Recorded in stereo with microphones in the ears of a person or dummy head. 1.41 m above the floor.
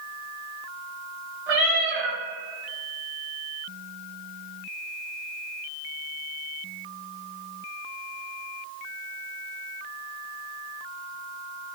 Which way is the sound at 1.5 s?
60° right (ahead or behind).